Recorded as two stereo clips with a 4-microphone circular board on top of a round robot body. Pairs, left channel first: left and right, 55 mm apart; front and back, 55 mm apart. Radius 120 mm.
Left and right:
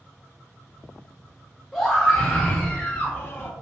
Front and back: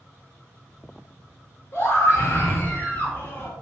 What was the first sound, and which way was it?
A scream, 5° left.